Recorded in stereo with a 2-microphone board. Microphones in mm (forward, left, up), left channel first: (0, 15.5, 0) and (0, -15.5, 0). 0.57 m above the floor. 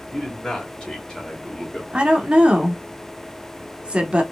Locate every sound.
0.1 s a man speaking: 25° left (ahead or behind), 2.5 m; by 1.8 s 15° left (ahead or behind), 1.4 m
1.9 s a woman speaking: 35° right (ahead or behind), 1.0 m